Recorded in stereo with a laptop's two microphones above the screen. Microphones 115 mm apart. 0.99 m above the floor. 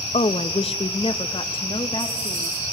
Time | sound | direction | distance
0.1 | a woman speaking | 65° left (ahead or behind) | 0.7 m